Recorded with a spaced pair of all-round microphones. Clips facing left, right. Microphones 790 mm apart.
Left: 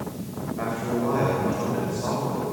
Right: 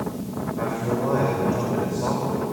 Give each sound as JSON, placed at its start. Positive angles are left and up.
{"t": 0.6, "sound": "a man speaking", "side_deg": -70, "distance_m": 6.5}